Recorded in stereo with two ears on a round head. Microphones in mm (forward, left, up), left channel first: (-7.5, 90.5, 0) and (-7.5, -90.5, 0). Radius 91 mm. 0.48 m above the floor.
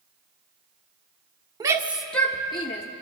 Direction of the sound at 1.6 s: 20° right (ahead or behind).